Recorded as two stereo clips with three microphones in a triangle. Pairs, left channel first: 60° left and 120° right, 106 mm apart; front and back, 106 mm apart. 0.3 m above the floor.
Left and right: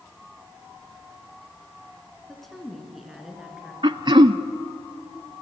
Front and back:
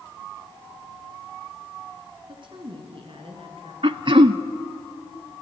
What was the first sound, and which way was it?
A woman speaking, 145° left.